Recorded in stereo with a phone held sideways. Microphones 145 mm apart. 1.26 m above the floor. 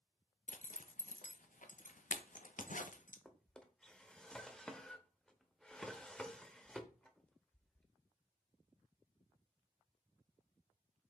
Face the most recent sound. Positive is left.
turn(degrees=5)  # may be behind; listen again after turning